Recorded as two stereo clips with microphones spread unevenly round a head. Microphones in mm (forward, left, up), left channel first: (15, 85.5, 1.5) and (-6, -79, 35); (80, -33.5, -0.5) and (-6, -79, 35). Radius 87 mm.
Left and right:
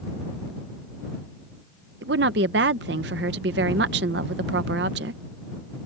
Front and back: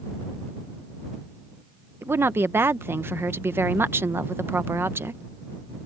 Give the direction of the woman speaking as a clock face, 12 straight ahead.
3 o'clock.